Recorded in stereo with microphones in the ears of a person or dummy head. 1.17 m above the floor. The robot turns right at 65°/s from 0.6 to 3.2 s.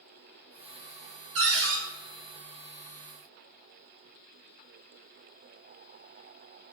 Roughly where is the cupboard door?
Right.